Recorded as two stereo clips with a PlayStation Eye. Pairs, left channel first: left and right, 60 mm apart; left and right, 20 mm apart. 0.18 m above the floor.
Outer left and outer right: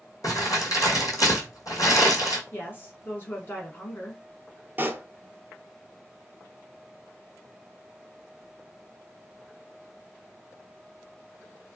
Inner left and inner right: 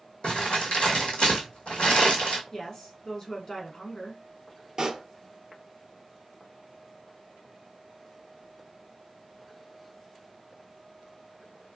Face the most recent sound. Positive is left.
turn(degrees=-35)  # may be behind; listen again after turning